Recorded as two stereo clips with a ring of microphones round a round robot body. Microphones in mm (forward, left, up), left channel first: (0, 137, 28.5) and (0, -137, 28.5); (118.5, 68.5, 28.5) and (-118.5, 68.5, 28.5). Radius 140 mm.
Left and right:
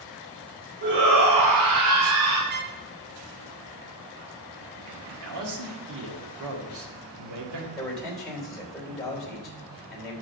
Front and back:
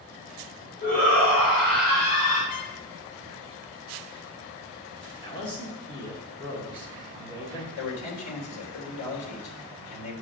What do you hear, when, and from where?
0.8 s a shout: 45° right, 3 m; by 2.4 s 65° right, 3 m
2.5 s a trumpet: 35° right, 0.7 m
5.2 s a man speaking: 75° right, 1.9 m
7.8 s a man speaking: straight ahead, 3 m